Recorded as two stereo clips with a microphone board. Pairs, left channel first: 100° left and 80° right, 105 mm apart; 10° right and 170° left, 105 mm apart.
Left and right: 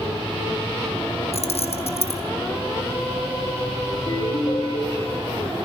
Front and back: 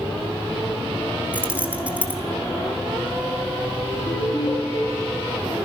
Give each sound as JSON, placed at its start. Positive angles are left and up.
{"t": 1.3, "sound": "keys jangling", "azimuth_deg": 95, "distance_m": 2.5}
{"t": 3.9, "sound": "a ringtone", "azimuth_deg": 60, "distance_m": 8.0}